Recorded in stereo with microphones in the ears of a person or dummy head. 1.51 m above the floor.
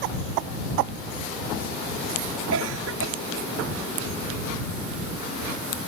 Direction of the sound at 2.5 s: 80° right.